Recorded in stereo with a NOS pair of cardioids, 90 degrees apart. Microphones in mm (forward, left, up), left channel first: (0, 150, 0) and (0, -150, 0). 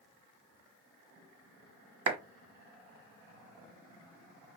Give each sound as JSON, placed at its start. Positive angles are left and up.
{"t": 2.1, "sound": "a clap", "azimuth_deg": -55, "distance_m": 1.4}